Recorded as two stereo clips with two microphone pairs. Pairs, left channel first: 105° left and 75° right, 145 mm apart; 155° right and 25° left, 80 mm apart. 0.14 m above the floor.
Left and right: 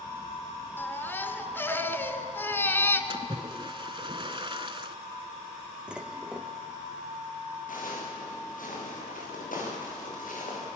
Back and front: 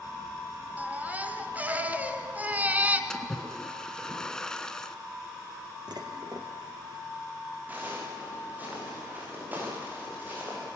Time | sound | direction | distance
0.8 | a baby crying | 60° left | 1.2 m
3.1 | a splash | 85° right | 0.8 m
5.9 | dishes clattering | 10° left | 2.5 m
7.7 | footsteps | 95° left | 10 m